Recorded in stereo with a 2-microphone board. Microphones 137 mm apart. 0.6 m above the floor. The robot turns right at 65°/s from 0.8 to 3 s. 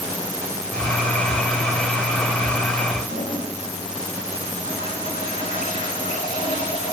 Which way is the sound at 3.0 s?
80° left.